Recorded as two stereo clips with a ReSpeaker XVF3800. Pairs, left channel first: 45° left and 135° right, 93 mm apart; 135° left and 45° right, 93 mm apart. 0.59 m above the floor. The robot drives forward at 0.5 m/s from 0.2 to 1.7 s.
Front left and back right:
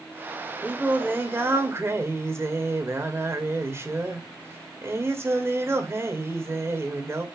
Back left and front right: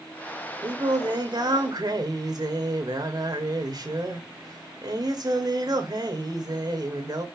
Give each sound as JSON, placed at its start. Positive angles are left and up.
{"t": 0.6, "sound": "singing", "azimuth_deg": -65, "distance_m": 2.5}